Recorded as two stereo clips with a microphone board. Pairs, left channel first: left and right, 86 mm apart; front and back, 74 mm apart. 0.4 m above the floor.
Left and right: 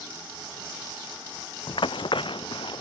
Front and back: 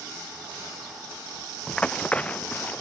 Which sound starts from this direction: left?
Running footsteps, at 1.7 s.